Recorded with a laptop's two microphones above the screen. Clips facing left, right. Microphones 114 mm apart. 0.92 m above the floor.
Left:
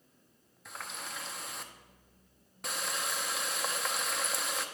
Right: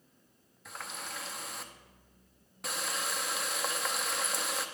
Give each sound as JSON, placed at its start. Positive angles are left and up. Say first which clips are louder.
{"t": 0.7, "sound": "a running tap", "louder": "even", "side_deg": 0, "distance_m": 0.6}